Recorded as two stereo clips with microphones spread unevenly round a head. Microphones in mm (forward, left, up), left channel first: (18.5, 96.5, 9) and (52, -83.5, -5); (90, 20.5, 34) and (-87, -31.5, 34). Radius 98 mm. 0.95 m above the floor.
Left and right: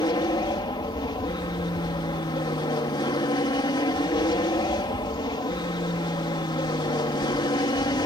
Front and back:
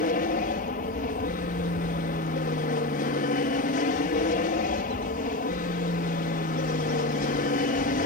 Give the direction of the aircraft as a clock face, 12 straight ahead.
11 o'clock.